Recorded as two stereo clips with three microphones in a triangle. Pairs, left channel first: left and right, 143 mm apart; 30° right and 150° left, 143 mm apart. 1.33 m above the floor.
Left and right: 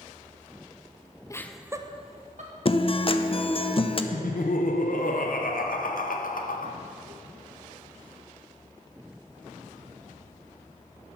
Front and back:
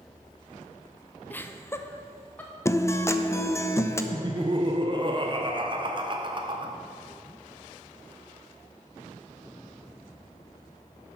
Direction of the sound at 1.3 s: 40° left.